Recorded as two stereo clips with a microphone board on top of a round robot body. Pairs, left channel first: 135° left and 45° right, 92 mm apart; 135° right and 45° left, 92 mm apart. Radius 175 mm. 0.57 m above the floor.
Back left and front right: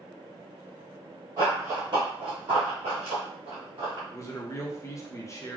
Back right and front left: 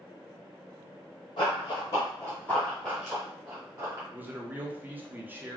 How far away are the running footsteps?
About 1.1 m.